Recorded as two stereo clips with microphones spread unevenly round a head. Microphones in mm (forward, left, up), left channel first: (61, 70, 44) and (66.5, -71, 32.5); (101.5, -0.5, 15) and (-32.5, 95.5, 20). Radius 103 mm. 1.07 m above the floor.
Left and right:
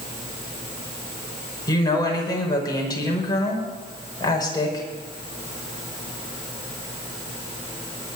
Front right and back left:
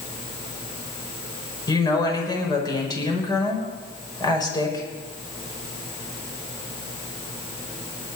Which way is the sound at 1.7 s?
30° left.